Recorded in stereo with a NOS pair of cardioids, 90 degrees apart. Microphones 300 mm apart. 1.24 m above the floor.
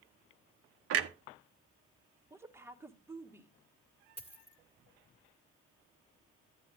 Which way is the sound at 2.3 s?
10° right.